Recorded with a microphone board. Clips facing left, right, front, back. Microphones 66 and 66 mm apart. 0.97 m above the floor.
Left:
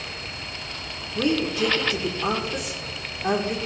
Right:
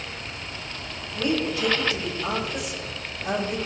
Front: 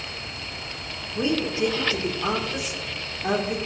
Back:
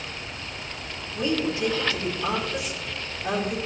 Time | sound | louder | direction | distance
1.1 | a woman speaking | left 2 dB, front 1 dB | 60° left | 2.5 m